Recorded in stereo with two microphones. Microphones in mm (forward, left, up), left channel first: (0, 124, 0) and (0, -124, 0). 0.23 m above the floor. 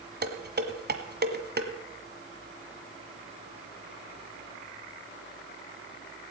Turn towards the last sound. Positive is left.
turn(degrees=-45)  # may be behind; listen again after turning